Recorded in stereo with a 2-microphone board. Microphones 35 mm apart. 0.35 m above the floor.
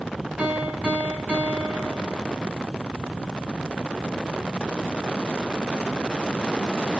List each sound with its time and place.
0.4 s a piano: 35° right (ahead or behind), 2 m